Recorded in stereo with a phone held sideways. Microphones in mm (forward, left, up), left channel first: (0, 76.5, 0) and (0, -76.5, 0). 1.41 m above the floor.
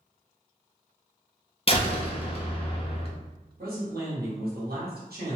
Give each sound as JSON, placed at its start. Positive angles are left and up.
{"t": 1.7, "sound": "a door slam", "side_deg": 40, "distance_m": 0.6}
{"t": 3.6, "sound": "a man speaking", "side_deg": -90, "distance_m": 1.4}